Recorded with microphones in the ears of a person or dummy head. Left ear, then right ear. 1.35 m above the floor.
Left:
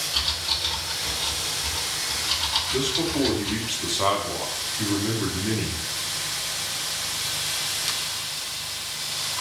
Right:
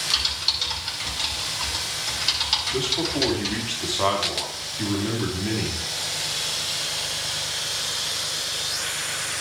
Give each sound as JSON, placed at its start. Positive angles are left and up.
{"t": 0.1, "sound": "typing on a keyboard", "side_deg": -65, "distance_m": 7.5}
{"t": 2.7, "sound": "a man speaking", "side_deg": -10, "distance_m": 3.5}